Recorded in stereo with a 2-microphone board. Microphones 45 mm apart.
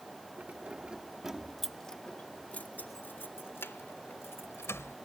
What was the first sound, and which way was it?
Keys jangling, 35° right (ahead or behind).